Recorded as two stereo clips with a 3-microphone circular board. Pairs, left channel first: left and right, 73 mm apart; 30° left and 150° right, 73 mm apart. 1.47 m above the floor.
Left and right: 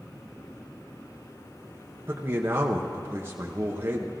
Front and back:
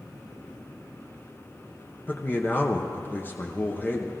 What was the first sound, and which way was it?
A man speaking, 35° right.